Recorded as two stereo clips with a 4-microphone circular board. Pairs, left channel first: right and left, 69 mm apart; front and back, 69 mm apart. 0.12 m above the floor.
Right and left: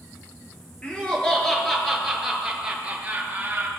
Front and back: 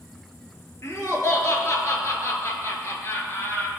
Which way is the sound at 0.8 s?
25° right.